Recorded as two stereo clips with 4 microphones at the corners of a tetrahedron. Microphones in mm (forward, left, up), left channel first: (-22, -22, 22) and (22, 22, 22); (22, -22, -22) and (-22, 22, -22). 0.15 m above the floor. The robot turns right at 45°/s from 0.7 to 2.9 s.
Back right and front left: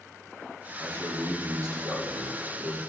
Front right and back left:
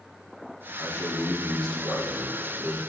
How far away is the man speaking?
About 4.5 m.